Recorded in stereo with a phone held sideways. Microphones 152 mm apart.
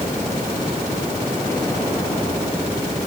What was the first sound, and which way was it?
Only background noise.